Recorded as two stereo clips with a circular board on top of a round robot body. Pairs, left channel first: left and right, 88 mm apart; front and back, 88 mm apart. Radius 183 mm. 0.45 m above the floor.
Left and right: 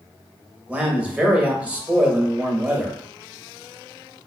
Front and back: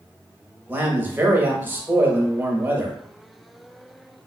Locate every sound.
0.7 s a man speaking: 145° right, 1.2 m